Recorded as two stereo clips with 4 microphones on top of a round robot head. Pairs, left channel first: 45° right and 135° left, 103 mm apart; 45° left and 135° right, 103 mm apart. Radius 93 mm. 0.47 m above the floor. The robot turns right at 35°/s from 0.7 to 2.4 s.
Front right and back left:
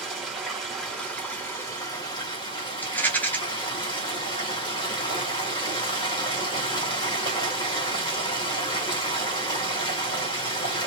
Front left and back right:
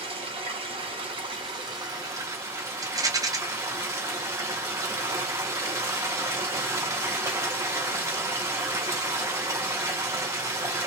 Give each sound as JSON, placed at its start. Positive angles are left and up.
{"t": 0.0, "sound": "running water", "azimuth_deg": -140, "distance_m": 1.8}
{"t": 2.8, "sound": "a rattle", "azimuth_deg": -110, "distance_m": 1.0}